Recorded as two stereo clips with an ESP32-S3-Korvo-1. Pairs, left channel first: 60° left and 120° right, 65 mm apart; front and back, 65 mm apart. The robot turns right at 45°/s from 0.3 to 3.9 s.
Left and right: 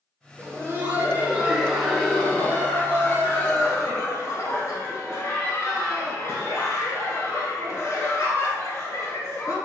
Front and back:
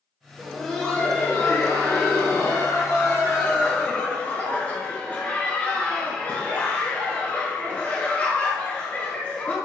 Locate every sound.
0.4 s laughter: 100° right, 1.5 m; by 9.6 s 60° left, 1.5 m